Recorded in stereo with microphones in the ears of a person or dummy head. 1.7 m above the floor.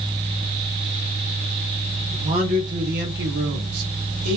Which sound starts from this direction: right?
A man speaking, at 2.1 s.